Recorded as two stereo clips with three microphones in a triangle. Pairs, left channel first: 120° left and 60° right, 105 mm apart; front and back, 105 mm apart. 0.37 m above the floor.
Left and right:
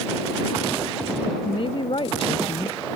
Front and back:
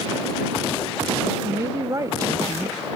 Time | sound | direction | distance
1.4 | a woman speaking | 130° left | ?